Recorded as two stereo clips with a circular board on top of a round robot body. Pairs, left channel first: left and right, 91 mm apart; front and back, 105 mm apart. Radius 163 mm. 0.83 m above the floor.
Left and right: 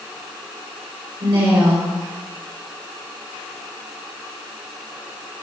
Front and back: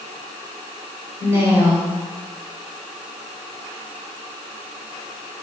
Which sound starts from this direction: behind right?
A woman speaking, at 1.2 s.